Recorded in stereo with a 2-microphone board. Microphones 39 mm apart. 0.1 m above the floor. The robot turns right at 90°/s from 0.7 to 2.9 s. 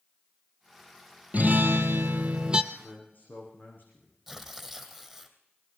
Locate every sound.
1.3 s a guitar: 135° right, 1.2 m; by 2.6 s 20° right, 1.2 m
2.7 s a man speaking: 35° left (ahead or behind), 7 m; by 4.2 s 50° left (ahead or behind), 7 m
4.3 s tearing paper: centre (ahead or behind), 3 m